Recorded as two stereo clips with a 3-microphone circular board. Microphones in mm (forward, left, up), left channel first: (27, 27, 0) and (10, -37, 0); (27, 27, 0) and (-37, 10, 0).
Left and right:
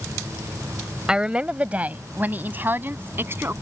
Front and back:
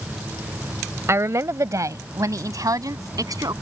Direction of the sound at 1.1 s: 175° right.